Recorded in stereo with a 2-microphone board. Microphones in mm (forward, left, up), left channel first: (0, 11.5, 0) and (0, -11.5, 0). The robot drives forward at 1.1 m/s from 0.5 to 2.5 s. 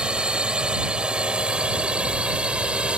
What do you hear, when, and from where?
0.0 s a drone: 40° right (ahead or behind); by 3.0 s 45° right (ahead or behind)